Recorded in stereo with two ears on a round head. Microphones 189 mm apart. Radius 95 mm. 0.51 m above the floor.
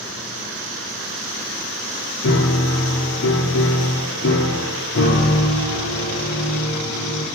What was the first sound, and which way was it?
A piano, 70° left (ahead or behind).